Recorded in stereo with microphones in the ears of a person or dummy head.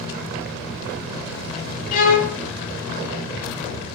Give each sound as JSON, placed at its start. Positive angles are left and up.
{"t": 1.9, "sound": "a violin", "side_deg": 40, "distance_m": 0.7}